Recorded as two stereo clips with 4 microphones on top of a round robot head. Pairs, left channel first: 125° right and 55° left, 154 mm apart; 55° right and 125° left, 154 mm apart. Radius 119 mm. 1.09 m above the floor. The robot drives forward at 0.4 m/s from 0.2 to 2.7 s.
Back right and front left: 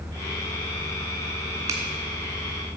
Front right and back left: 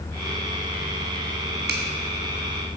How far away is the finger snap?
About 1.8 m.